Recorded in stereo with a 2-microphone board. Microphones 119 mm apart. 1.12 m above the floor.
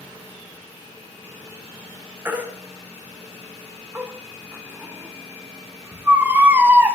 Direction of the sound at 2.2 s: 20° right (ahead or behind).